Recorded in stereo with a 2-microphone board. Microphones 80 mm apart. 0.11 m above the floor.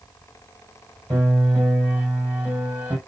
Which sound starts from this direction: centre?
A piano, at 1.1 s.